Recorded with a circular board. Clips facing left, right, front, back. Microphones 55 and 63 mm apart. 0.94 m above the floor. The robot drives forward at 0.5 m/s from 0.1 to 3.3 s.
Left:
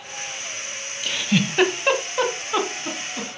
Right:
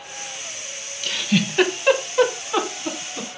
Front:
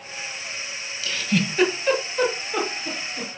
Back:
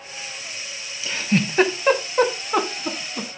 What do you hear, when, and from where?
1.0 s a giggle: 160° left, 0.8 m; by 3.3 s 175° left, 1.6 m